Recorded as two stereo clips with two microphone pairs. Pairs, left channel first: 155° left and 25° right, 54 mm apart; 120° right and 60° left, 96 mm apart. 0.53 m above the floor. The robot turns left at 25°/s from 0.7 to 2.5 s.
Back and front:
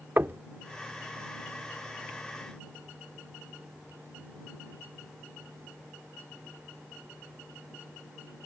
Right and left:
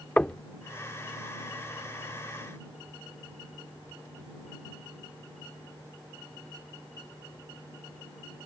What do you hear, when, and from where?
0.2 s knocking: 50° right